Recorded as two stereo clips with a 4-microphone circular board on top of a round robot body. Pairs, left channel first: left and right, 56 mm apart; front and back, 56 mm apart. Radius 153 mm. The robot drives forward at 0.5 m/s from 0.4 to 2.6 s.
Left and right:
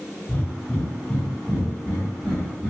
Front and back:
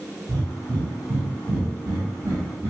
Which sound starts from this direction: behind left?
Breathing, at 0.3 s.